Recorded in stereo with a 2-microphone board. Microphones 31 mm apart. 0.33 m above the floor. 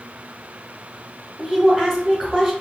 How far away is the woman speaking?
About 0.9 m.